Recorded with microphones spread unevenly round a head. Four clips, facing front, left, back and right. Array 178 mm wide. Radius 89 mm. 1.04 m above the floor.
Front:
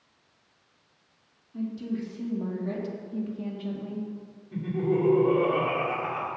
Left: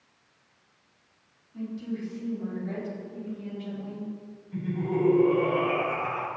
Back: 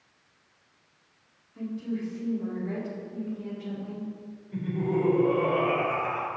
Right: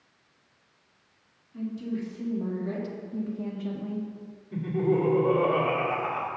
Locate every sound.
1.5 s a woman speaking: 10° right, 2 m; by 4.1 s 65° right, 1.7 m
4.5 s laughter: 65° right, 2.5 m